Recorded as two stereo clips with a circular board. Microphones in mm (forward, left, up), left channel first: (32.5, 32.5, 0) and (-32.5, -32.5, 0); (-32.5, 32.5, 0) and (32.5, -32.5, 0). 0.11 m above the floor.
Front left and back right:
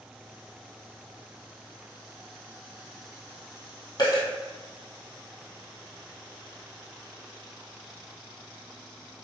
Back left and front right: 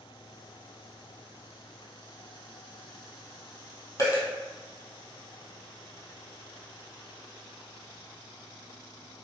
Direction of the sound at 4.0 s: 85° left.